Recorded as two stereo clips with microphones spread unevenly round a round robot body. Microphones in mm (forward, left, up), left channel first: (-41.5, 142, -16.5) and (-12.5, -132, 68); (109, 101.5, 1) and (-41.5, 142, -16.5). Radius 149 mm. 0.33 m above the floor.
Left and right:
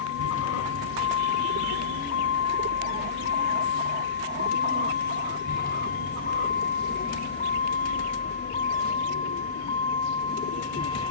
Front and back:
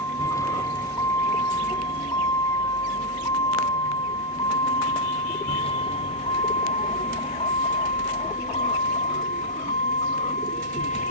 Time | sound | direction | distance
0.0 | a vehicle | 55° left | ?